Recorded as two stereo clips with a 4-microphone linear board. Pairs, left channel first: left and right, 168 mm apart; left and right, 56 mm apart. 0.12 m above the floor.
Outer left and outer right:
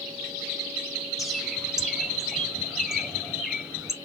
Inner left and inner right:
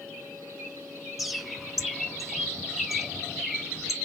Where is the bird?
Centre (ahead or behind), 0.8 m.